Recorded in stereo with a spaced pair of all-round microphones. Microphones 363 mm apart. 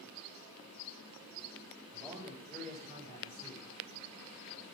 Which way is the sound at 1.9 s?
5° left (ahead or behind).